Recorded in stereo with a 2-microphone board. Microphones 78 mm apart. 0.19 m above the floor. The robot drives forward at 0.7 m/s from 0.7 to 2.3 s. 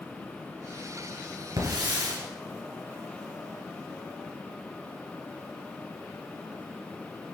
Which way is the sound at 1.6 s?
65° right (ahead or behind).